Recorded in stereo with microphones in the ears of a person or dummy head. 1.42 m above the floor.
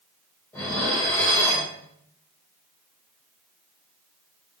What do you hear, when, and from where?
0.5 s dishes clattering: 10° left (ahead or behind), 3 m